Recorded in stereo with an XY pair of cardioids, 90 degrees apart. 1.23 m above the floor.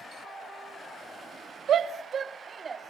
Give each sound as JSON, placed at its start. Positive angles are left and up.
{"t": 1.7, "sound": "a shout", "azimuth_deg": -70, "distance_m": 2.0}